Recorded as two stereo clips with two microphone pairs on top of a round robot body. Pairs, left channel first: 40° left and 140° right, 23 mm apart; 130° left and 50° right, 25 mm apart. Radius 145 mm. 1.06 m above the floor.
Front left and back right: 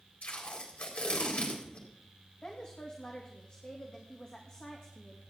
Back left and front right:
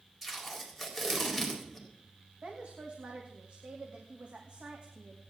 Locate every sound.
0.2 s tape being pulled: 35° left, 4 m
2.4 s a woman speaking: 15° right, 2.5 m